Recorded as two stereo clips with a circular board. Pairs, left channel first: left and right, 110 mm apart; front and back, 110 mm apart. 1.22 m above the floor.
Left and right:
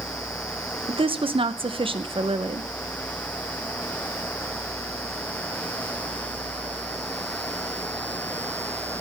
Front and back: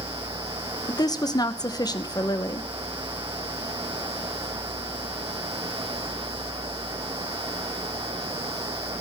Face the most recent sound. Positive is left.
turn(degrees=-55)